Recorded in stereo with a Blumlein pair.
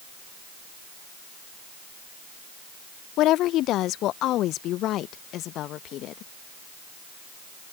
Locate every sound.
3.2 s a woman speaking: 35° left